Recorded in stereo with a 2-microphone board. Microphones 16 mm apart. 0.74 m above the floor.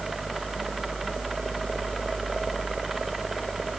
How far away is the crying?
I don't hear crying.